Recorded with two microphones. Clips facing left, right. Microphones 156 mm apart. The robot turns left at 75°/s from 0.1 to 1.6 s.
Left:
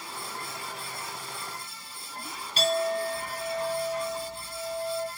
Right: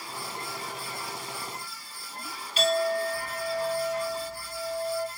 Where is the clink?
40° left (ahead or behind), 1.9 m.